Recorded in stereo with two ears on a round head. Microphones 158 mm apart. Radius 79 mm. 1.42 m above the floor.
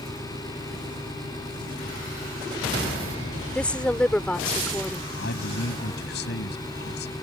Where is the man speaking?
70° left (ahead or behind).